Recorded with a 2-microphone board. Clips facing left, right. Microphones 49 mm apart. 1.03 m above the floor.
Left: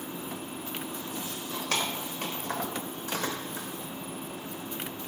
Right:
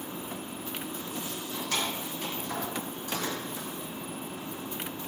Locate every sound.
1.3 s keys jangling: 85° left, 3 m; by 3.7 s 35° left (ahead or behind), 2.5 m